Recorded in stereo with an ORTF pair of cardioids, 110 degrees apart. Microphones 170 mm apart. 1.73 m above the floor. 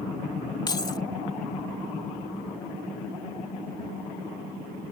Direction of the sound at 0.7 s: 25° left.